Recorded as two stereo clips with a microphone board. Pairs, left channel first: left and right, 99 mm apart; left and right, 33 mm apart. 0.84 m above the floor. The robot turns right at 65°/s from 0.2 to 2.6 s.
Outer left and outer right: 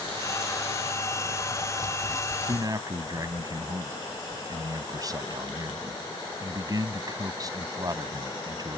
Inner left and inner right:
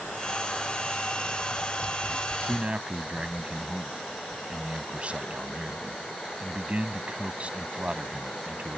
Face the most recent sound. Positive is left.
turn(degrees=-40)  # may be behind; listen again after turning